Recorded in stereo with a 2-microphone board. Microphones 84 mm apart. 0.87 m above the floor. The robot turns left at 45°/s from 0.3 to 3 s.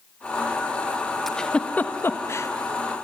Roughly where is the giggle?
Centre.